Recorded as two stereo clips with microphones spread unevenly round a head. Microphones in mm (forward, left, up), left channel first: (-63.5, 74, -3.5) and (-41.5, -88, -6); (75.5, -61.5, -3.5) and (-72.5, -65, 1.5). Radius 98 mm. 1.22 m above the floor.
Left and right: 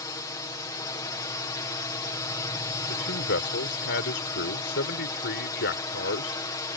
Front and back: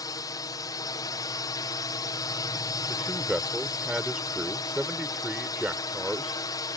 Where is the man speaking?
95° left.